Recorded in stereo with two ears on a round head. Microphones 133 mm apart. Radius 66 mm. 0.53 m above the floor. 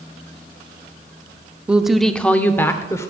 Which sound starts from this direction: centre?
A woman speaking, at 1.7 s.